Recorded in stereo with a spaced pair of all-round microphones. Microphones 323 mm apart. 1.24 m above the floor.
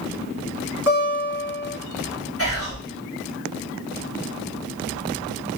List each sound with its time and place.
0.9 s a guitar: 45° left (ahead or behind), 2 m
2.4 s whispering: 45° left (ahead or behind), 1.3 m